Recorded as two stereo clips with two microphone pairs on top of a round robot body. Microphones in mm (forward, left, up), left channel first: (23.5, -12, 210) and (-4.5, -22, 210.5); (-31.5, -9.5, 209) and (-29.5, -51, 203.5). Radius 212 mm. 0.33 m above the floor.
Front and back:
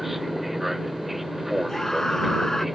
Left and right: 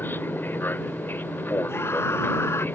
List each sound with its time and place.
0.0 s an aircraft: 115° left; by 2.8 s 120° left
1.7 s a scream: 95° left